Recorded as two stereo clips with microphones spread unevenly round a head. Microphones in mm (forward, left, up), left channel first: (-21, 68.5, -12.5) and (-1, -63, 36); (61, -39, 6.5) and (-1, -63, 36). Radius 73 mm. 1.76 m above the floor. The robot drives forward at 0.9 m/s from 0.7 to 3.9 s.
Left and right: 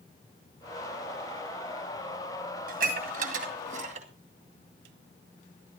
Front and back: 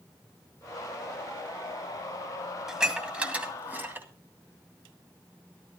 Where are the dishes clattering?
85° right, 2.5 m; by 4.1 s 110° right, 2.5 m.